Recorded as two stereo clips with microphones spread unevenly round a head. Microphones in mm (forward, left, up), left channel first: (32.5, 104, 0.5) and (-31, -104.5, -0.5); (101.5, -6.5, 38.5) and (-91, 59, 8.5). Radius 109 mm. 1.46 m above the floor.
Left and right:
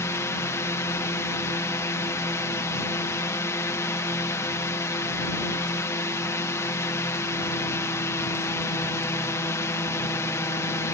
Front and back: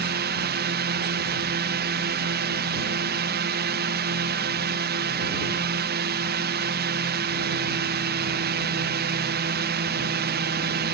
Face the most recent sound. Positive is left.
turn(degrees=150)